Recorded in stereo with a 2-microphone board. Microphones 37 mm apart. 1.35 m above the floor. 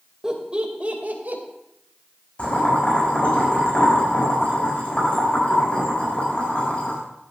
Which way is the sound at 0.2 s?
20° right (ahead or behind).